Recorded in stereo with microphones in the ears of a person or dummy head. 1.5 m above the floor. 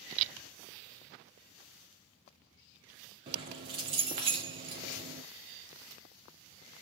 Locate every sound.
3.3 s keys jangling: 20° right (ahead or behind), 0.6 m